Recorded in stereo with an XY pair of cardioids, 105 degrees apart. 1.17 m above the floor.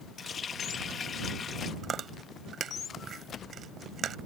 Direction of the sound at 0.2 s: 45° left.